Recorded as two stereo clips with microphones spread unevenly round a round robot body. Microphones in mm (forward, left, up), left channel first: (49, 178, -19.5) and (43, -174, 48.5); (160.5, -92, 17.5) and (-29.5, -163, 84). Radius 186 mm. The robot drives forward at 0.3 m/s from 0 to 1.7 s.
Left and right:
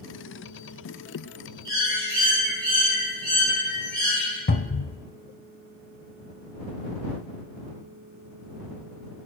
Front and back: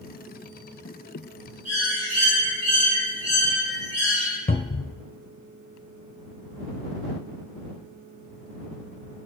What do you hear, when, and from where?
1.6 s a bird: 170° right, 9 m
4.5 s a cupboard door: 50° left, 0.8 m